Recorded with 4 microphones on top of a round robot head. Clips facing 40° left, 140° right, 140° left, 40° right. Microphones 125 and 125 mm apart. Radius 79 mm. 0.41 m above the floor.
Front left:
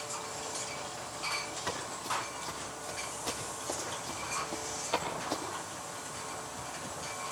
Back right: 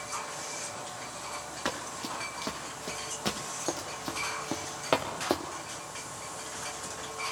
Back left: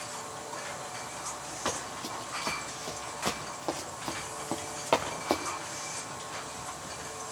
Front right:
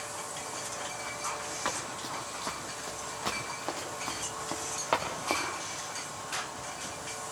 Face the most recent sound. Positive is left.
turn(degrees=-155)